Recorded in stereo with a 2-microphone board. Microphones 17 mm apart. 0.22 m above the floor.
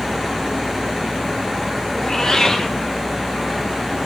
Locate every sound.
2.0 s a cat meowing: 35° left (ahead or behind), 1.3 m